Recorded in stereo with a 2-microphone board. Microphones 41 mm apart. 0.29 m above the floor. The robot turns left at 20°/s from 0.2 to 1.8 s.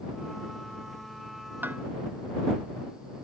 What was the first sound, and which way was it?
Dishes clattering, 50° right (ahead or behind).